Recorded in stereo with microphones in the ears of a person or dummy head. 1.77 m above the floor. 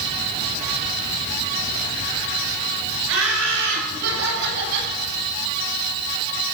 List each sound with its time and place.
3.1 s laughter: 70° right (ahead or behind), 9.5 m; by 4.9 s 60° right (ahead or behind), 10 m